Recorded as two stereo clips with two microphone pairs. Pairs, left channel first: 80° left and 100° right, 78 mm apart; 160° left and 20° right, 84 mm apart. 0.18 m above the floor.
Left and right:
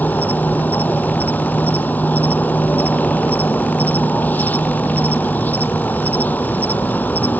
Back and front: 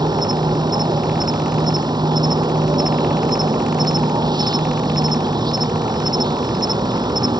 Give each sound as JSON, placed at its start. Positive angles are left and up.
{"t": 0.0, "sound": "an insect", "azimuth_deg": 10}